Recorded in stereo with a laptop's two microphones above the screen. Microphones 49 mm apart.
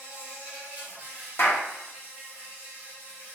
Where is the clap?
50° left (ahead or behind), 1.0 m.